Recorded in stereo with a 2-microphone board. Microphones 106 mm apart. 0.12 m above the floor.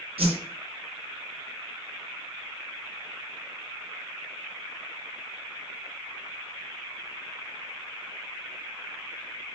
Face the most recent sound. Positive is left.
turn(degrees=-70)  # may be behind; listen again after turning